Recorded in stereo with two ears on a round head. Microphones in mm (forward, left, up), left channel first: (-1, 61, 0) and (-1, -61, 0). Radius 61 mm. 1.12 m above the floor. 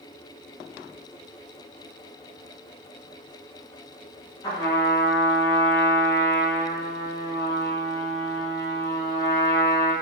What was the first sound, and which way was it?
A trumpet, 30° left (ahead or behind).